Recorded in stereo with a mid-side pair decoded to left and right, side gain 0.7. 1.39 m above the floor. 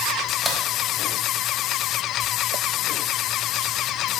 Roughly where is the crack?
Ahead.